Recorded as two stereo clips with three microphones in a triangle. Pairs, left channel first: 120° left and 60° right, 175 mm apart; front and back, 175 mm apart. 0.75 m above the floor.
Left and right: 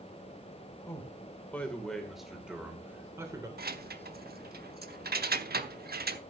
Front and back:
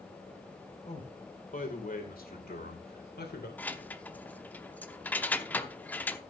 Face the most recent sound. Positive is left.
turn(degrees=-80)